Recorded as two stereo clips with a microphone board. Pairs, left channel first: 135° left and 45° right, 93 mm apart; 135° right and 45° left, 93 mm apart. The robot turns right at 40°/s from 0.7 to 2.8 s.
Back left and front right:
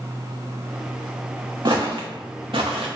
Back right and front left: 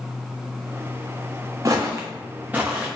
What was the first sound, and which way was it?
Footsteps, 5° right.